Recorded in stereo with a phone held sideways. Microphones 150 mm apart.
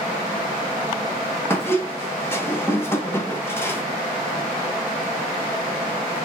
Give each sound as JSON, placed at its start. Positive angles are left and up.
{"t": 1.5, "sound": "a squeak", "side_deg": 15, "distance_m": 0.8}